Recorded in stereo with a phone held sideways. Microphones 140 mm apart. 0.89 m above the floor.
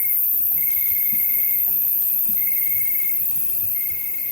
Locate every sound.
0.0 s an insect: 45° left (ahead or behind), 2 m